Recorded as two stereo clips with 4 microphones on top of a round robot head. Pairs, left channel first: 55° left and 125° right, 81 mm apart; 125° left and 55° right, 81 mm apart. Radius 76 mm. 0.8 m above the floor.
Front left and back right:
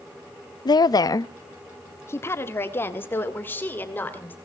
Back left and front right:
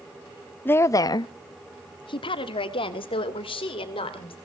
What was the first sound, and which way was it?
A woman speaking, 60° left.